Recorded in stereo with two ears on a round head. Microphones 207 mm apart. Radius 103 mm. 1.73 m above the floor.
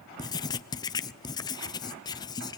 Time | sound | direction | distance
0.2 | writing | 15° left (ahead or behind) | 0.7 m